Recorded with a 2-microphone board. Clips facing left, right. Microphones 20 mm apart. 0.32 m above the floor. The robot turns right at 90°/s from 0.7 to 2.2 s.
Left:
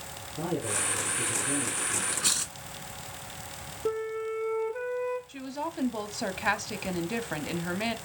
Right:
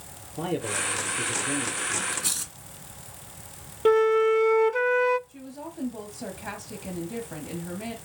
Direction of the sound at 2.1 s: 15° left (ahead or behind).